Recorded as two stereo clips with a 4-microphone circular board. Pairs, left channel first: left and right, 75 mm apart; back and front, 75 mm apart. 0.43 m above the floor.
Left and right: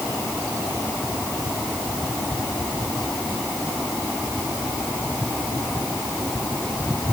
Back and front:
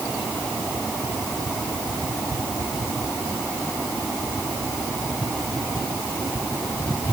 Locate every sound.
Only background noise.